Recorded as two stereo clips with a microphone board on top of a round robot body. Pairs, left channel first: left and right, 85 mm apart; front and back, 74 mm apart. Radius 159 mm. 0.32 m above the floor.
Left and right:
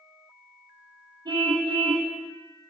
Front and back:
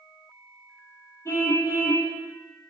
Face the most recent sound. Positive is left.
turn(degrees=-50)